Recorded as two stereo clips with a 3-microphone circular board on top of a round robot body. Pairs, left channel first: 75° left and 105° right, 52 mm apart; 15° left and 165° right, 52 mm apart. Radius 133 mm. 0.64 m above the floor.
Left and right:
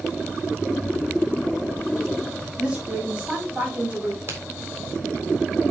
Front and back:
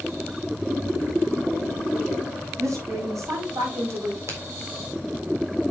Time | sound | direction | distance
2.6 | a woman speaking | 175° right | 6.5 m
4.3 | a crack | 145° right | 3.5 m